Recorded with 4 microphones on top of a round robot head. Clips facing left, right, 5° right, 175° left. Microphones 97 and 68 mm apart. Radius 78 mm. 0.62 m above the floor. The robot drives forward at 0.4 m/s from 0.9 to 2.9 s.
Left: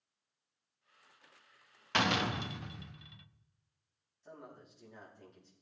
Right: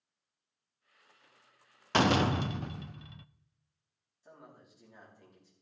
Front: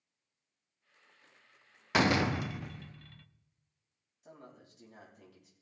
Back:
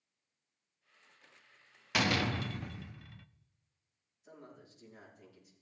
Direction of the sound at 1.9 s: 50° right.